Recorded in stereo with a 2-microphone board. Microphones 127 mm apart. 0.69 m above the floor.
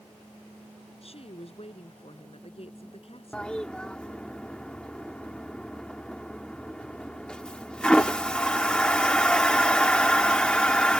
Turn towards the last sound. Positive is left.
turn(degrees=5)  # may be behind; listen again after turning